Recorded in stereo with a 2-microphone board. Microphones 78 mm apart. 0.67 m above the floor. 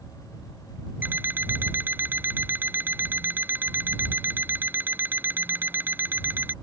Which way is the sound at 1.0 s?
25° right (ahead or behind).